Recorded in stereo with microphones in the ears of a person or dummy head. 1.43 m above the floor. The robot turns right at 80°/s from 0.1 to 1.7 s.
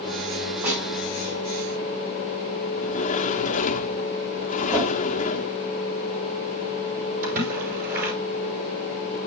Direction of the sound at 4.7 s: 10° right (ahead or behind).